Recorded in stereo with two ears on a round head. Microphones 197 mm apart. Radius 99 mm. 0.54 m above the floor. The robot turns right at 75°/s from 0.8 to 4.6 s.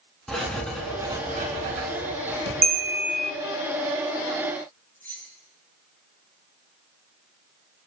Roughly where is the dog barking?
I don't hear a dog barking.